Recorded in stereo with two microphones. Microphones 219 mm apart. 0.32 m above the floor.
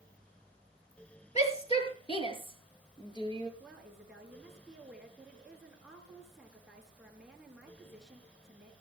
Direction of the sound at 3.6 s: Centre (ahead or behind).